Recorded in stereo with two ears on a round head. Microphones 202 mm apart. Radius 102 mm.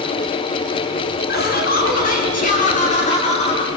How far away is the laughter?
About 4.5 m.